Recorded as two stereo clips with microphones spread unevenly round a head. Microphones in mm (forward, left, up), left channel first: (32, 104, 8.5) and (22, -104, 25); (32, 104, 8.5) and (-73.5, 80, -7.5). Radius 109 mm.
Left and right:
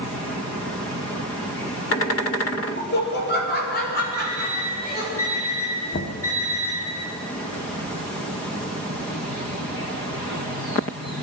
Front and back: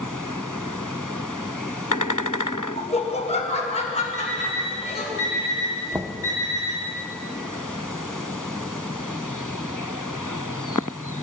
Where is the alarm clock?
10° left, 7 m.